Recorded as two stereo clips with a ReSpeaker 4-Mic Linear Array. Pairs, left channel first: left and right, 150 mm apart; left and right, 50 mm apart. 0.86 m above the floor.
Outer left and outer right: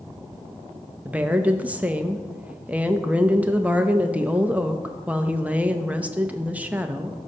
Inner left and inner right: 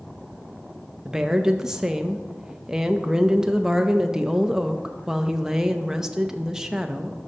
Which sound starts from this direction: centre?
A woman speaking, at 1.1 s.